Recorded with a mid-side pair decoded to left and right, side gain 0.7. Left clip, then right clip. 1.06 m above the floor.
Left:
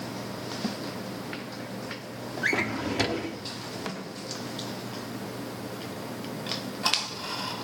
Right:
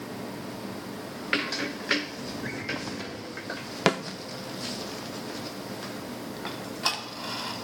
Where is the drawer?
55° left, 1.1 m.